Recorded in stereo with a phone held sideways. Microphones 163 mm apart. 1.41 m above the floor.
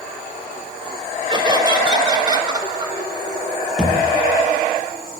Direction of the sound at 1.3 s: 30° right (ahead or behind).